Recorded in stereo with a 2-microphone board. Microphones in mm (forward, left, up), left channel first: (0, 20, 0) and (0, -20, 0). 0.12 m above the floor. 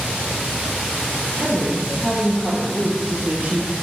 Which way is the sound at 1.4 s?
35° right (ahead or behind).